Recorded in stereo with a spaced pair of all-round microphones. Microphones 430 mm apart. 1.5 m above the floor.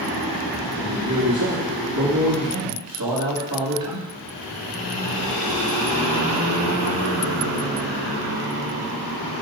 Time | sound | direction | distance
0.8 | a man speaking | 55° right (ahead or behind) | 3 m